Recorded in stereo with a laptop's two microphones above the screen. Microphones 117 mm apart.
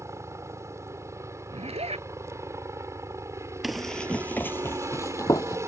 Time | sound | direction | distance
0.0 | a helicopter | 25° right (ahead or behind) | ?
1.5 | a zipper | 60° right (ahead or behind) | ?
3.6 | running footsteps | centre (ahead or behind) | ?